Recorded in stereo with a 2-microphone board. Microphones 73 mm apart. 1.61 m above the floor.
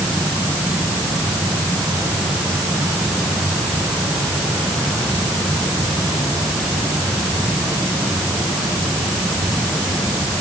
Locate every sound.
Only background noise.